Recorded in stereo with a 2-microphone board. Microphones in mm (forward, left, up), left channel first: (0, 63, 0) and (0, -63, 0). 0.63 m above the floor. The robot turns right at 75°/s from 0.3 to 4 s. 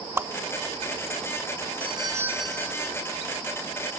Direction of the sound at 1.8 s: 50° right.